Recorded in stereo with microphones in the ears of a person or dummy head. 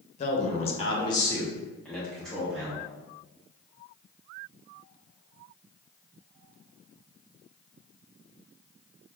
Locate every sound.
0.2 s a man speaking: 35° left (ahead or behind), 0.8 m; by 2.9 s 10° right (ahead or behind), 1.2 m